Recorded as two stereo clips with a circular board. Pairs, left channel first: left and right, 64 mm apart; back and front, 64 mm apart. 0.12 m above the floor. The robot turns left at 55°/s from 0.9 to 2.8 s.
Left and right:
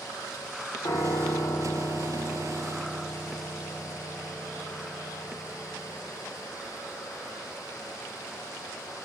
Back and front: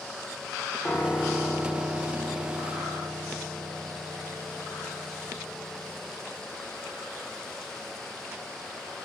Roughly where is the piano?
Left.